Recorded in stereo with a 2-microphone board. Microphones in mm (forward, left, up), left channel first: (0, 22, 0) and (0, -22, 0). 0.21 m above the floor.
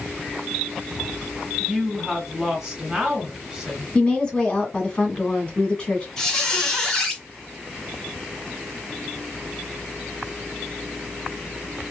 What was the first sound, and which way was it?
A woman speaking, 5° right (ahead or behind).